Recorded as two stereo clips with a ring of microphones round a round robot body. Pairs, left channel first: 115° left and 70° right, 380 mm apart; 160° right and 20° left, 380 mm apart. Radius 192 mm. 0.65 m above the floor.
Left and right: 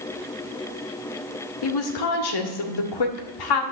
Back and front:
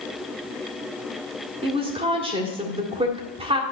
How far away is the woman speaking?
About 1.6 m.